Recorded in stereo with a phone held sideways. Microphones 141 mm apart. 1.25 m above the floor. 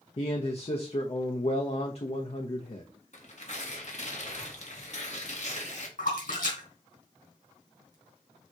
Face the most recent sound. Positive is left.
turn(degrees=80)